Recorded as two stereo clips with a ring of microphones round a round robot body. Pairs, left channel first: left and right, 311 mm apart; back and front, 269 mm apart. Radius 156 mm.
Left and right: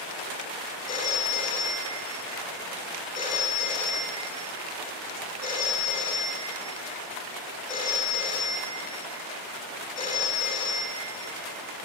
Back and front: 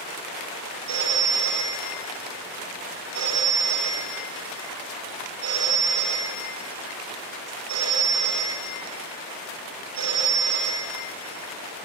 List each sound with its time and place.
0.9 s a phone ringing: 20° left, 2.5 m